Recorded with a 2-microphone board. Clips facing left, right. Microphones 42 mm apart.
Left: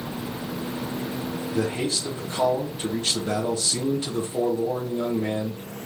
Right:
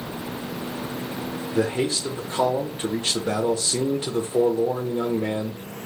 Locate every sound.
1.5 s a man speaking: 25° right (ahead or behind), 0.8 m